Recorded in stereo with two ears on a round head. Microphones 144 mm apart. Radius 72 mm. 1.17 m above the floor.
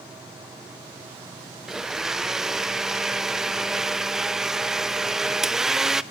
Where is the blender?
5° right (ahead or behind), 0.5 m.